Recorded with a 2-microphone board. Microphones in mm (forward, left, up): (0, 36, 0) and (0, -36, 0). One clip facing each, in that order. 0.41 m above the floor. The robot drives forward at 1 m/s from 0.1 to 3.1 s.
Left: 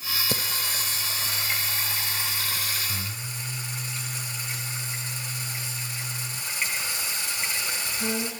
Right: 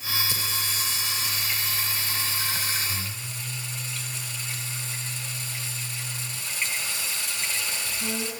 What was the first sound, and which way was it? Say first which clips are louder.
Singing: left 1 dB; 50° left (ahead or behind).